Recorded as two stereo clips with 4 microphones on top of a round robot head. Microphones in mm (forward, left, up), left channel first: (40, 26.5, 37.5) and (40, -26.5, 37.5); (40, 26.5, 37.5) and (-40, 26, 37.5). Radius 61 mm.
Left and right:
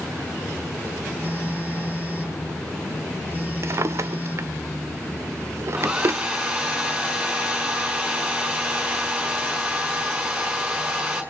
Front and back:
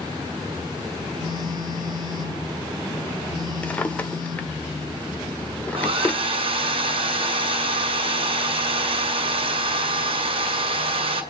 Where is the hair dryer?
165° right, 2.0 m.